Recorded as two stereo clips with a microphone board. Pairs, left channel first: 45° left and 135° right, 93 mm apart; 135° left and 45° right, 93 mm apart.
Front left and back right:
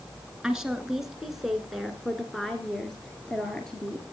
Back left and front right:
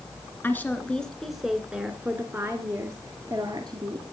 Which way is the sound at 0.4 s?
155° left.